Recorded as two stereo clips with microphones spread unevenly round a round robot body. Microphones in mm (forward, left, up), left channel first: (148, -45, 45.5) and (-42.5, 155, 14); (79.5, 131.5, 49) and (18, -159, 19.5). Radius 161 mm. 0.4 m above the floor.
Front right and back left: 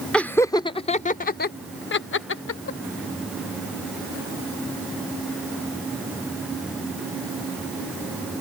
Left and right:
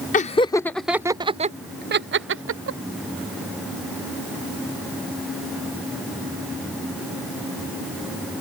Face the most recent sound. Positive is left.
turn(degrees=-85)